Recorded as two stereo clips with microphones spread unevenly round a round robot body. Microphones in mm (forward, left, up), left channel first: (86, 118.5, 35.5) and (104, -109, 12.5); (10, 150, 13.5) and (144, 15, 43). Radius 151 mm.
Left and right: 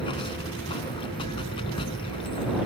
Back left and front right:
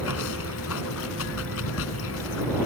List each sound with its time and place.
0.0 s running water: 170° left